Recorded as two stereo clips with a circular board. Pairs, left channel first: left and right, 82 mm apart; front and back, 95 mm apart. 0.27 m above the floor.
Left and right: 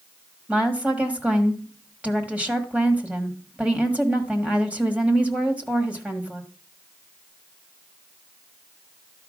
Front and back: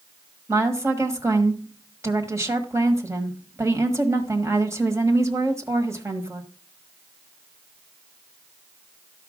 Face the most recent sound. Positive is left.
turn(degrees=-150)